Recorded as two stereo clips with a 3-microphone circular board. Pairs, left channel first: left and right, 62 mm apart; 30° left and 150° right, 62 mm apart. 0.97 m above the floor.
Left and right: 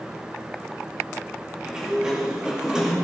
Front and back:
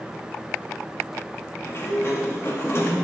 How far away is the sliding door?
About 2 m.